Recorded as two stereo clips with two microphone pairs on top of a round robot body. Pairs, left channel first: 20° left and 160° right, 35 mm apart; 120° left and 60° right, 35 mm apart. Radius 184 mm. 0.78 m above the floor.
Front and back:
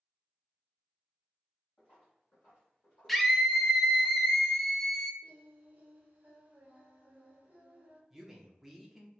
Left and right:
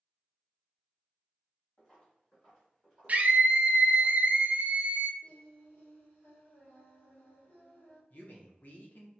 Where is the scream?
75° right, 0.6 m.